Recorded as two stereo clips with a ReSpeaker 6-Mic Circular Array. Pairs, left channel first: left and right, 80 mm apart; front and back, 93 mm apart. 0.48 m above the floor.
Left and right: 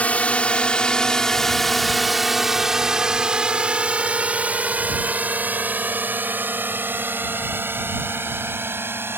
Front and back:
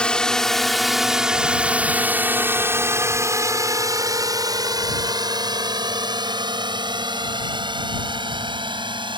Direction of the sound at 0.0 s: 60° left.